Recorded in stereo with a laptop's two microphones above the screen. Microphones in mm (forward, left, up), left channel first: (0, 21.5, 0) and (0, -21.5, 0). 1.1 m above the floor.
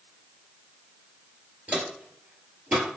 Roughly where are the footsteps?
Right.